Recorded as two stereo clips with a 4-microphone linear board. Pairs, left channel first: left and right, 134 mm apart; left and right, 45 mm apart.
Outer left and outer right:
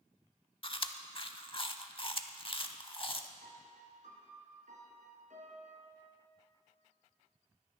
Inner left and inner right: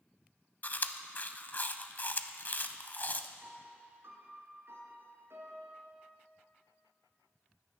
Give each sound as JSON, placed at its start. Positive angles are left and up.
{"t": 0.6, "sound": "chewing", "side_deg": 40, "distance_m": 0.6}
{"t": 3.4, "sound": "a piano", "side_deg": -70, "distance_m": 2.0}